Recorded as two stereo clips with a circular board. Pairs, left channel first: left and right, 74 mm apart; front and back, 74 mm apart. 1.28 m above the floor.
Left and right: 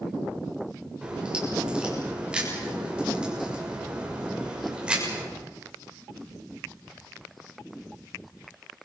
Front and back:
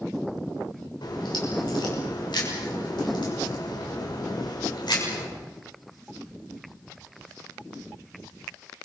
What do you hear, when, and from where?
1.0 s a crack: 15° right, 6.5 m